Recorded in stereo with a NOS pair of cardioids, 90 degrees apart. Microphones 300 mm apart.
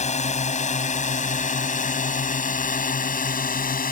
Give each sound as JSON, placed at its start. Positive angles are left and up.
{"t": 0.0, "sound": "a drone", "azimuth_deg": 25}